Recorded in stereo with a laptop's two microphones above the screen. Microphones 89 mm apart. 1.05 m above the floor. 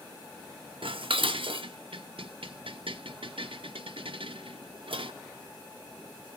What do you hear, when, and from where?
0.8 s dishes clattering: 75° right (ahead or behind), 0.6 m